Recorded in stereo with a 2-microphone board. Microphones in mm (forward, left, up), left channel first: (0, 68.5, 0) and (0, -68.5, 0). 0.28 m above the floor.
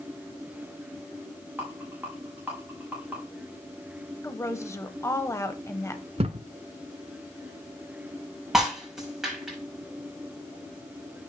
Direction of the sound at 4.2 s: 20° left (ahead or behind).